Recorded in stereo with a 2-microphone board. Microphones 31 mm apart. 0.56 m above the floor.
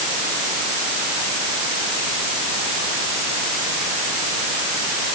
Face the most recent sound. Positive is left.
No sound to turn to.